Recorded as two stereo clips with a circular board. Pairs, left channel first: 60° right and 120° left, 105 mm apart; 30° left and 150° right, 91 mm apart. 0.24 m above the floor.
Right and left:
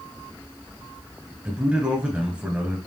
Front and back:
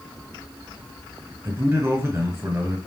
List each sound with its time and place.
1.4 s a man speaking: 175° right, 1.3 m